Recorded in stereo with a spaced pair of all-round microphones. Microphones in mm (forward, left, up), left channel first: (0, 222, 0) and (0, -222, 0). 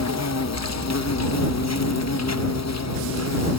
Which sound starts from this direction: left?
An insect, at 0.0 s.